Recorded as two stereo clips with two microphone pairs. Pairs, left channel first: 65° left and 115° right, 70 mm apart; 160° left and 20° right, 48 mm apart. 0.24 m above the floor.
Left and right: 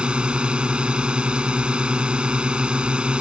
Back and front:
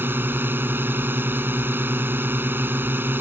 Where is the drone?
45° right.